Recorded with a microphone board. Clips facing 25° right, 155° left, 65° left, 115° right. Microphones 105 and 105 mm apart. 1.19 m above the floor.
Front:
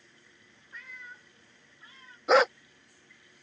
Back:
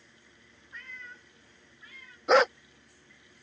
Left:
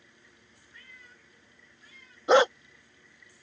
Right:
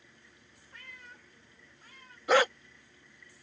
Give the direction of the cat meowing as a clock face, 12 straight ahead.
4 o'clock.